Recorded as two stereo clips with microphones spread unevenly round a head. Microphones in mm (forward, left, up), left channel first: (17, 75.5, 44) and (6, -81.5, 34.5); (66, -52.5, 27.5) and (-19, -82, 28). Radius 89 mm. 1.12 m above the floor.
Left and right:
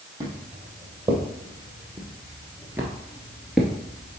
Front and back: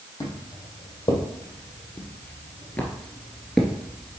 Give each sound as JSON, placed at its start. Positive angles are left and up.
{"t": 0.2, "sound": "footsteps", "azimuth_deg": -25, "distance_m": 2.5}